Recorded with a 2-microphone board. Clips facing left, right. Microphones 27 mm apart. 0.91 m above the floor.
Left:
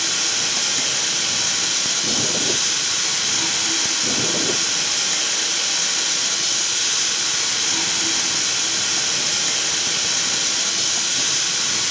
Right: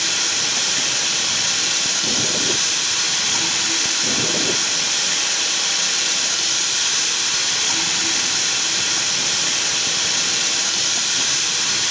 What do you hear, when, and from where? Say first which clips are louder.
0.0 s running water: right 1 dB; 90° right, 4.5 m